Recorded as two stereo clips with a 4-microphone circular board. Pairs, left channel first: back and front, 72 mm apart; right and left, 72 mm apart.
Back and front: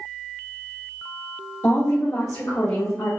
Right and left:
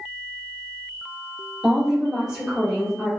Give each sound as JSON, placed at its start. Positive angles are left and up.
{"t": 1.6, "sound": "a woman speaking", "azimuth_deg": 175, "distance_m": 1.2}